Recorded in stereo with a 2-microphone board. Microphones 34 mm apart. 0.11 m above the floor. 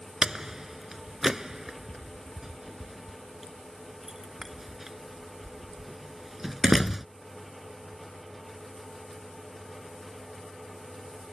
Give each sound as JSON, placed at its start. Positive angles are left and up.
{"t": 0.2, "sound": "a door slam", "side_deg": -15}